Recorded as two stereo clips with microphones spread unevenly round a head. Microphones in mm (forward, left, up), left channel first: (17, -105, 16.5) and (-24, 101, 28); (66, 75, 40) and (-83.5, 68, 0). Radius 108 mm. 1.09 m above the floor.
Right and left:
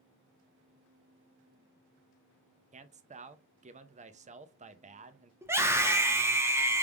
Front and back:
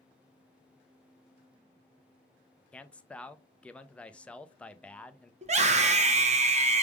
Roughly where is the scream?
Behind.